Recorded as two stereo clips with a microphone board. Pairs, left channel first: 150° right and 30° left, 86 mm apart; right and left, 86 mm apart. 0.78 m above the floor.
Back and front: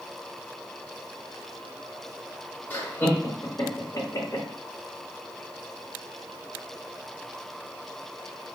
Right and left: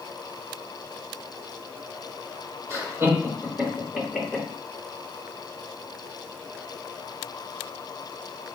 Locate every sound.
2.7 s laughter: 140° left, 1.7 m; by 4.5 s straight behind, 1.6 m